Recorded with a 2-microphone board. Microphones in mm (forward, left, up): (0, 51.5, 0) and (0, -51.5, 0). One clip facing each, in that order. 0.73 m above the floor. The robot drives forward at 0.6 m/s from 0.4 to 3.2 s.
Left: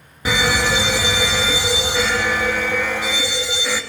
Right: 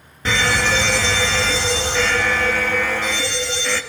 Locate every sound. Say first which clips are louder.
0.2 s a fire alarm: left 1 dB; 10° left (ahead or behind), 1.5 m